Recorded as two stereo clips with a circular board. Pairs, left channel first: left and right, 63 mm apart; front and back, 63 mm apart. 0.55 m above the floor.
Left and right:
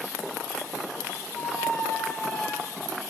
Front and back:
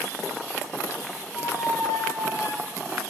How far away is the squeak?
About 2 m.